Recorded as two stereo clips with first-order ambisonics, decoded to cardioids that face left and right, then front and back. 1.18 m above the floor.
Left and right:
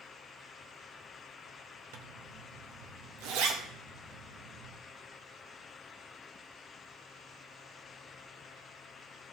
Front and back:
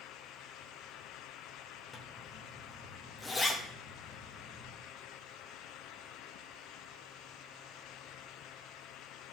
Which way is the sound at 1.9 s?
80° right.